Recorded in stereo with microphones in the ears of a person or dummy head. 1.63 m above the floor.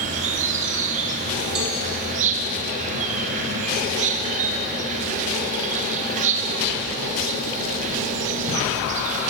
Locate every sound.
0.0 s an insect: 35° right (ahead or behind), 0.8 m
1.6 s a cowbell: 10° right (ahead or behind), 1.3 m